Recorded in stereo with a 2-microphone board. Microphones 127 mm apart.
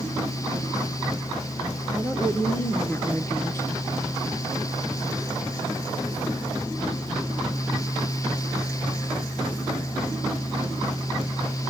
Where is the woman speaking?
15° left (ahead or behind), 1.3 m; by 3.7 s 20° left (ahead or behind), 1.3 m.